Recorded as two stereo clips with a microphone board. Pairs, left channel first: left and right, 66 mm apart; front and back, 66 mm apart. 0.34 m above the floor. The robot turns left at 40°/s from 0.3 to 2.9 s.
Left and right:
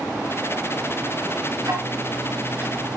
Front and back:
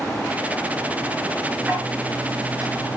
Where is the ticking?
115° right, 4 m; by 3.0 s 170° right, 4 m.